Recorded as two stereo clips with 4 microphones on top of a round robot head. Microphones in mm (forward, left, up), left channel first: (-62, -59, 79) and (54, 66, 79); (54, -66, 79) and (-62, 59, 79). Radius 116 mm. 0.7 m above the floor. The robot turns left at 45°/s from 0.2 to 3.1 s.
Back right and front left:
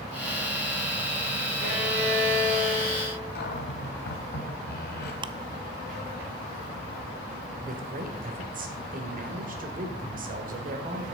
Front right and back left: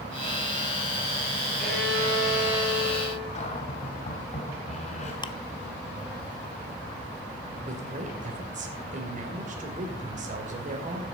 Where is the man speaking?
85° left, 2.5 m.